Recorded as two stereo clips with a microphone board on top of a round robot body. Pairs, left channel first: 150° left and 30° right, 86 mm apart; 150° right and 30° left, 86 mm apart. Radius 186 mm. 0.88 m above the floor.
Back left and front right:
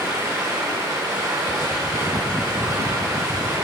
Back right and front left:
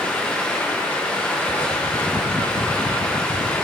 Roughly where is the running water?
Right.